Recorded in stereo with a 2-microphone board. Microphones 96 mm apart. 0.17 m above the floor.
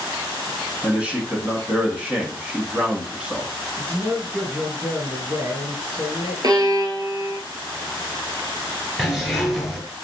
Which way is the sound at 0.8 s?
15° right (ahead or behind).